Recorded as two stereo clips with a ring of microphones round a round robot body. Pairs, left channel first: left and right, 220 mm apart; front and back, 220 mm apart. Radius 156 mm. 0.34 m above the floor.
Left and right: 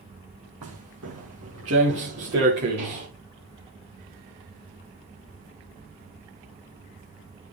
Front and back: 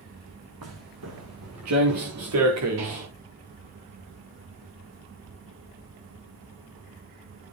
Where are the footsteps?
135° right, 2.5 m; by 3.1 s 150° right, 4.5 m.